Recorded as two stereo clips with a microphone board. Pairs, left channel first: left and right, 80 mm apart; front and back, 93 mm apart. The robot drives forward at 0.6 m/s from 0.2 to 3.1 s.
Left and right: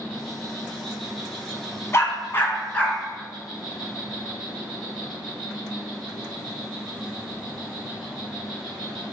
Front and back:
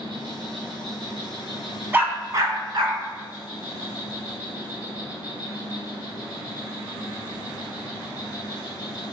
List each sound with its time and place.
0.0 s an insect: straight behind, 1.6 m
1.9 s a dog barking: 120° left, 0.6 m; by 3.0 s 155° left, 1.0 m